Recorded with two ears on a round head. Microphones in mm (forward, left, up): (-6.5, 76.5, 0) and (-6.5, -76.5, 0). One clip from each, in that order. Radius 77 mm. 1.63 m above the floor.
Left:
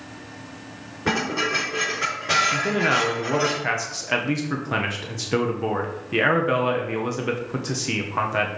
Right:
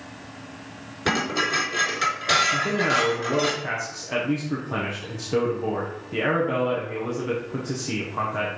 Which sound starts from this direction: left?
A man speaking, at 2.5 s.